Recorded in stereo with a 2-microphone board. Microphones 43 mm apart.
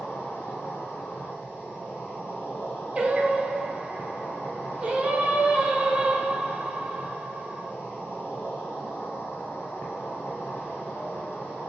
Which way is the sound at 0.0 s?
60° left (ahead or behind).